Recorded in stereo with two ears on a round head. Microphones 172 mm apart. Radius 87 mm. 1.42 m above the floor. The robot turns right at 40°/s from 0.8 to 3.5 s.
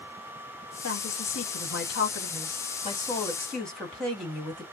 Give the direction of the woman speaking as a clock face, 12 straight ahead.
10 o'clock.